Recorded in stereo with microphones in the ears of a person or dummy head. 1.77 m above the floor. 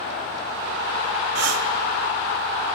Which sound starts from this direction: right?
Breathing, at 1.4 s.